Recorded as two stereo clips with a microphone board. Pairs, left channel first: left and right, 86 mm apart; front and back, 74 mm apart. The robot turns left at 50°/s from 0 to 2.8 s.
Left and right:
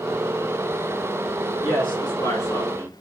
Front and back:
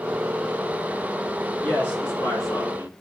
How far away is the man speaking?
About 3 m.